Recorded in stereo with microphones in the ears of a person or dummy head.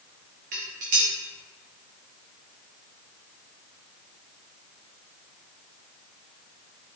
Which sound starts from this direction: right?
Dishes clattering, at 0.5 s.